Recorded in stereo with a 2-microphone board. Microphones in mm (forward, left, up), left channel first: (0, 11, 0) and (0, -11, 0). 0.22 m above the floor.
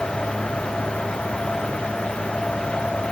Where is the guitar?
I don't hear a guitar.